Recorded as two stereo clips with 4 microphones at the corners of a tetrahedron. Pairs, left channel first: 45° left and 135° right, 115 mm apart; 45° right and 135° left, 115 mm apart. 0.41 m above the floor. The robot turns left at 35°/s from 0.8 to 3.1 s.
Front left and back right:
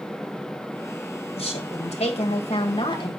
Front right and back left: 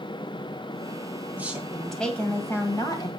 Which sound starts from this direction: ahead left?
A woman speaking, at 1.4 s.